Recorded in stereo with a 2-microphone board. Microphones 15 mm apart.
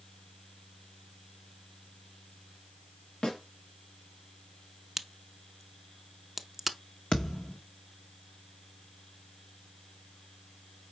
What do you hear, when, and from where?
3.2 s a snare drum: 50° left (ahead or behind), 2 m
5.0 s a crack: 15° right (ahead or behind), 0.5 m
7.1 s a thud: 65° left (ahead or behind), 0.9 m